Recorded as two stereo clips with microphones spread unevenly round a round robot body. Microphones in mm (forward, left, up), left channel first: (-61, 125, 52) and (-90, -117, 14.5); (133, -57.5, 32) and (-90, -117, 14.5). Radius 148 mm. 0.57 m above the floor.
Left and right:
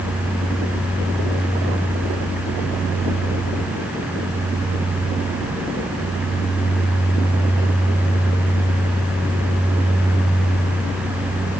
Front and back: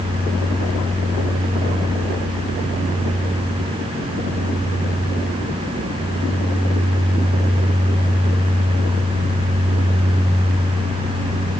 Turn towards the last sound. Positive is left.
No sound to turn to.